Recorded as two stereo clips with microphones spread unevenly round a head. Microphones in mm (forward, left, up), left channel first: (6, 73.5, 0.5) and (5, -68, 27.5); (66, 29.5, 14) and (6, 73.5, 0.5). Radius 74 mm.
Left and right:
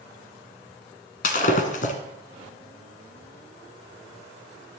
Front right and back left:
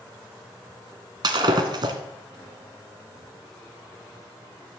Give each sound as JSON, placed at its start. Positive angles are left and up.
{"t": 1.2, "sound": "breaking glass", "azimuth_deg": 125, "distance_m": 1.8}